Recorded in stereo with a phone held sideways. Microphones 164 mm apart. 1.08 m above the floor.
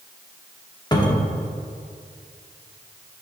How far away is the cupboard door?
About 0.8 m.